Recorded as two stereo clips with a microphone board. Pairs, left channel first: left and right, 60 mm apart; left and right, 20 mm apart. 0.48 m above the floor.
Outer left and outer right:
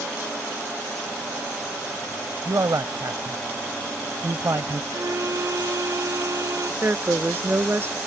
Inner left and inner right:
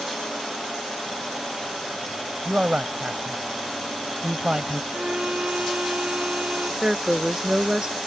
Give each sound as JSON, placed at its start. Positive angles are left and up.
{"t": 2.5, "sound": "a man speaking", "side_deg": -65}
{"t": 4.9, "sound": "a violin", "side_deg": -65}
{"t": 6.8, "sound": "a woman speaking", "side_deg": -35}